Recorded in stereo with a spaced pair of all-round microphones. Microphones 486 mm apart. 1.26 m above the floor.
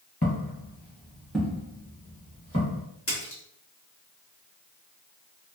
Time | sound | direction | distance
0.2 | footsteps | 30° left (ahead or behind) | 1.5 m
3.1 | a splash | 30° left (ahead or behind) | 1.1 m